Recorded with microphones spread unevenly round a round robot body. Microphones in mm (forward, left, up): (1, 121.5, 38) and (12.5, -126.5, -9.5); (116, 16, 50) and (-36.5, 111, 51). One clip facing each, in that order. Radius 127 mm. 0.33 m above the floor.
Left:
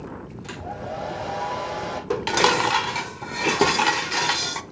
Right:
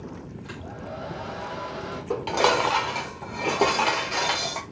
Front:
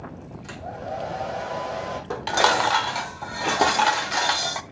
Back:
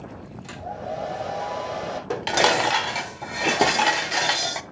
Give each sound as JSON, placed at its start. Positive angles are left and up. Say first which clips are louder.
{"t": 0.4, "sound": "a hair dryer", "louder": "left 3 dB, back 1 dB", "azimuth_deg": 60, "distance_m": 5.0}
{"t": 2.1, "sound": "dishes clattering", "louder": "left 1 dB, back 1 dB", "azimuth_deg": 120, "distance_m": 0.7}